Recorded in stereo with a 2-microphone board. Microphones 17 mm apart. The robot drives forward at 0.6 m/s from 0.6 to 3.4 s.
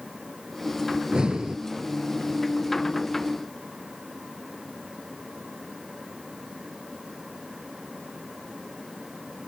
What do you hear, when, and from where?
0.9 s breathing: 55° right (ahead or behind), 0.8 m; by 1.6 s 50° right (ahead or behind), 0.8 m